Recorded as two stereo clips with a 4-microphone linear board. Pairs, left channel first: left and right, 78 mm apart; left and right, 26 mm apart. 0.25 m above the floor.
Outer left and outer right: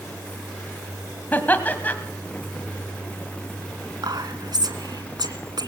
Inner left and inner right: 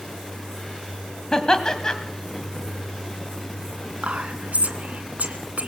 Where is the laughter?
25° left (ahead or behind), 1.7 m.